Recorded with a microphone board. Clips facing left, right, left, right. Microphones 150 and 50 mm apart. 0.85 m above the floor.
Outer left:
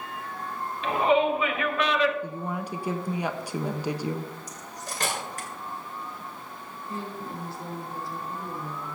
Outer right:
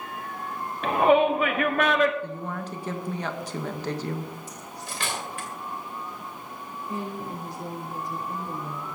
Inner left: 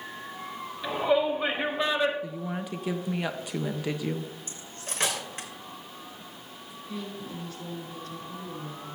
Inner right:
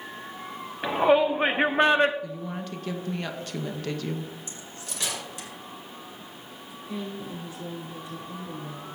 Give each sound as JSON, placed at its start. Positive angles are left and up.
{"t": 0.8, "sound": "a shout", "side_deg": -55, "distance_m": 1.6}
{"t": 2.2, "sound": "a woman speaking", "side_deg": 10, "distance_m": 0.8}
{"t": 4.5, "sound": "cutlery clinking", "side_deg": 45, "distance_m": 2.5}
{"t": 6.9, "sound": "a woman speaking", "side_deg": -20, "distance_m": 4.5}